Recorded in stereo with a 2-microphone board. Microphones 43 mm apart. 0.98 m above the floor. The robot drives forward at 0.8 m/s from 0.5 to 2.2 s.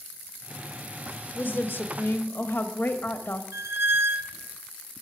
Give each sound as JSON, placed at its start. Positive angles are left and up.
{"t": 1.4, "sound": "a woman speaking", "side_deg": 55, "distance_m": 1.5}
{"t": 3.5, "sound": "a squeak", "side_deg": -70, "distance_m": 0.8}